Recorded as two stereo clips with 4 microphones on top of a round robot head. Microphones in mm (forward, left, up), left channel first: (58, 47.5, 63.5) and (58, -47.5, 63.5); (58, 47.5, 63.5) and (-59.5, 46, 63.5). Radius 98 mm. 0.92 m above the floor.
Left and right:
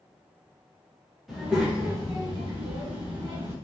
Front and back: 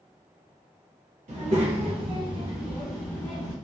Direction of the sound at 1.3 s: Straight behind.